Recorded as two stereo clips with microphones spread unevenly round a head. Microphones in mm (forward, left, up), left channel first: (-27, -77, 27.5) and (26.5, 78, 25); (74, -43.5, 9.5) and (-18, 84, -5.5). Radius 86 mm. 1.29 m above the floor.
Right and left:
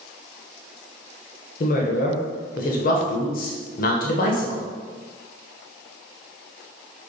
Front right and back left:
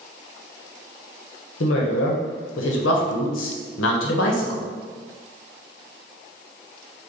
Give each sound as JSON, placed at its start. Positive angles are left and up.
{"t": 1.6, "sound": "a woman speaking", "azimuth_deg": -70, "distance_m": 0.8}